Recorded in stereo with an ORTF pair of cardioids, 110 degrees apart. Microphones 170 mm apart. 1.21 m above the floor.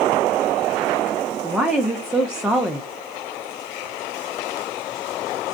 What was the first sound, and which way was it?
A woman speaking, 5° right.